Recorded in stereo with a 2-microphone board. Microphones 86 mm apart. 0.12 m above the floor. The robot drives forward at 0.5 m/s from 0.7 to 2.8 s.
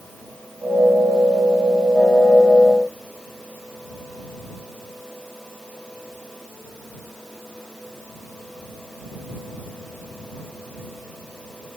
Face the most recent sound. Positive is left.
No sound to turn to.